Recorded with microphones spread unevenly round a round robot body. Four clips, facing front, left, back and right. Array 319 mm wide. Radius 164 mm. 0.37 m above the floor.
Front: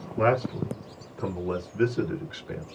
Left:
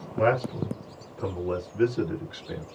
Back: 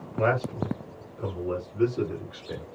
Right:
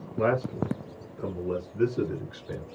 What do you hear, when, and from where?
0.2 s a man speaking: 55° left, 1.7 m; by 2.7 s 65° right, 1.4 m